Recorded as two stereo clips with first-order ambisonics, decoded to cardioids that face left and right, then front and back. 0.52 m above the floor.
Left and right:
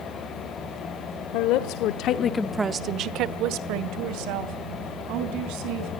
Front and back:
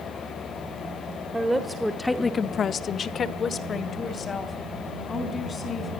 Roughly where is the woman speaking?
Left.